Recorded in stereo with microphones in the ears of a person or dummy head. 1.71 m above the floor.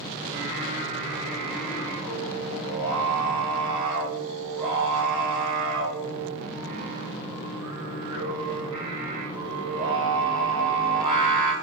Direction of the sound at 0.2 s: 25° right (ahead or behind).